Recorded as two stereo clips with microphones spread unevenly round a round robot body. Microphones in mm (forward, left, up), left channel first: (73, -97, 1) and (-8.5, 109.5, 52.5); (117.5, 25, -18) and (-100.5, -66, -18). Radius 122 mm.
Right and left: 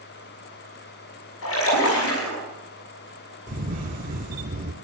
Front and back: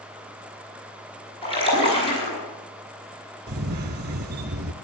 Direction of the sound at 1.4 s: 45° right.